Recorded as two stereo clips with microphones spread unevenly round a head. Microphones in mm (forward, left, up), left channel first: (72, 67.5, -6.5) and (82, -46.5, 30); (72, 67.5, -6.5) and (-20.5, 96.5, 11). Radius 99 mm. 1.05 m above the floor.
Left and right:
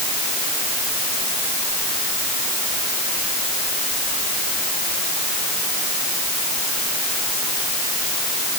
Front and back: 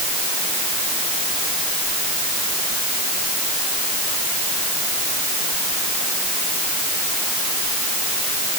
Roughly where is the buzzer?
I don't hear a buzzer.